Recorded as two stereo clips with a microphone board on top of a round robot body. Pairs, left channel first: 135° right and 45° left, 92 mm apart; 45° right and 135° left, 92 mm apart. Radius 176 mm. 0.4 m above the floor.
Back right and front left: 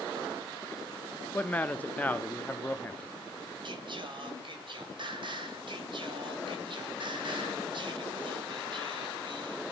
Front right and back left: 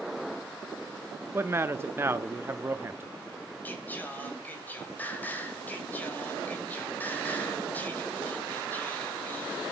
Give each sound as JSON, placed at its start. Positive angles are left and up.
{"t": 1.3, "sound": "a man speaking", "azimuth_deg": 165, "distance_m": 1.0}
{"t": 3.6, "sound": "singing", "azimuth_deg": 25, "distance_m": 3.5}